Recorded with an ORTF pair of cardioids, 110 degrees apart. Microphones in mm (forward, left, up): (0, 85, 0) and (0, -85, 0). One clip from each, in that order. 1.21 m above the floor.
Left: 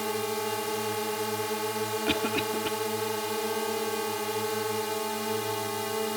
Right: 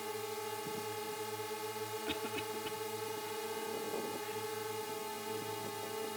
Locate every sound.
0.0 s a drone: 60° left
2.1 s a cough: 70° left